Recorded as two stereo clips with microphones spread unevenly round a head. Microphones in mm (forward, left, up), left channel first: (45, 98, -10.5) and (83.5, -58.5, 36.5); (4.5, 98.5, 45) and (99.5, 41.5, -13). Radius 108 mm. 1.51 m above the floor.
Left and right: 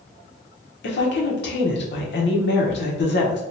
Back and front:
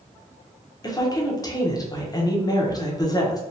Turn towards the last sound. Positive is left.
turn(degrees=95)